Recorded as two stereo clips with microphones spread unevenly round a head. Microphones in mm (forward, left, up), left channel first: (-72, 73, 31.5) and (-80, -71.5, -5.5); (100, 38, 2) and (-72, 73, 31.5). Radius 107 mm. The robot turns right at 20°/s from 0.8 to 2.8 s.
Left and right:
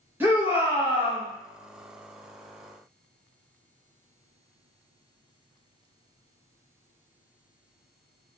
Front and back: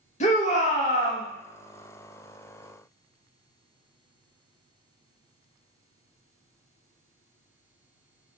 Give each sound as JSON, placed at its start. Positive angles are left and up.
{"t": 0.2, "sound": "a shout", "azimuth_deg": -30, "distance_m": 0.9}